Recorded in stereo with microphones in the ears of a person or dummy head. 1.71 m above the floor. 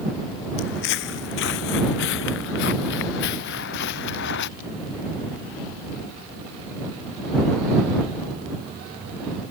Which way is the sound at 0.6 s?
60° left (ahead or behind).